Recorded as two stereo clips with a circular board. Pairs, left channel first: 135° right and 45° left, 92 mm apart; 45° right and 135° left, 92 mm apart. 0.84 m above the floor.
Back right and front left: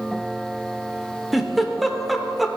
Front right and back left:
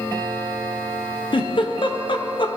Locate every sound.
1.3 s a giggle: 45° right, 0.7 m